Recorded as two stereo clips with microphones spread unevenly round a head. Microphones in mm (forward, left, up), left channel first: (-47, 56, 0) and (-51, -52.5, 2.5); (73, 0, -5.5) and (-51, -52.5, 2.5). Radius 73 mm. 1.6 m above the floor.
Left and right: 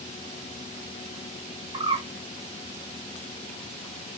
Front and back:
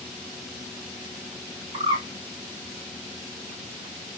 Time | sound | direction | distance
1.7 | a bird | 115° right | 1.7 m